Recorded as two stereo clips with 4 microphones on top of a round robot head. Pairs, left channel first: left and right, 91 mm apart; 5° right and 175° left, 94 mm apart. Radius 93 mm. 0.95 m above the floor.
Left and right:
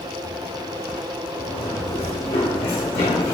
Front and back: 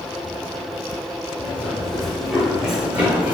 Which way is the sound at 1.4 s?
70° left.